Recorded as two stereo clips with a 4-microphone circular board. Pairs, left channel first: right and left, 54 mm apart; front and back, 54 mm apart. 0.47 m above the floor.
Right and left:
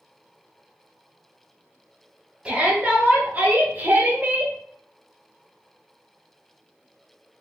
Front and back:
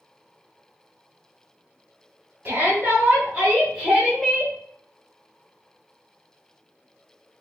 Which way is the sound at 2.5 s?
150° left.